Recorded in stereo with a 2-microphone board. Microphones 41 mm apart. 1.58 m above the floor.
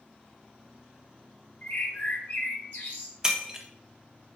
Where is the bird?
65° left (ahead or behind), 1.3 m.